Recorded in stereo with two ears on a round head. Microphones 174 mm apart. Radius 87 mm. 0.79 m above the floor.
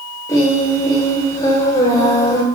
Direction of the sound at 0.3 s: 20° left (ahead or behind).